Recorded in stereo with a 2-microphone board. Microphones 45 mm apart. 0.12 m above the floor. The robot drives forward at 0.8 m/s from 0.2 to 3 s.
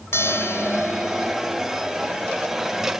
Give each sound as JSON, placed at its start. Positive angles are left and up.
{"t": 0.1, "sound": "a bell", "side_deg": 80}